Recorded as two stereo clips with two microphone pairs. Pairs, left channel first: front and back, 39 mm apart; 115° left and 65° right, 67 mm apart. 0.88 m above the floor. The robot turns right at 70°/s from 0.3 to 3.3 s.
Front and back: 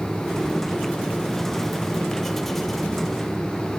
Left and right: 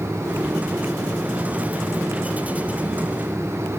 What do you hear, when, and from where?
Only background noise.